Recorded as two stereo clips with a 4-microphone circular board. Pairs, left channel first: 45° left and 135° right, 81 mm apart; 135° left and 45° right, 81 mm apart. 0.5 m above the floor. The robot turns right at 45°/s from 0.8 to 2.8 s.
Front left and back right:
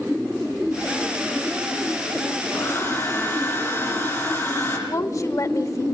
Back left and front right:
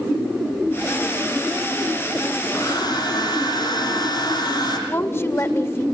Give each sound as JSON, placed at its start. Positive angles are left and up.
{"t": 2.5, "sound": "a hair dryer", "azimuth_deg": 95, "distance_m": 8.5}
{"t": 4.9, "sound": "a woman speaking", "azimuth_deg": 85, "distance_m": 1.2}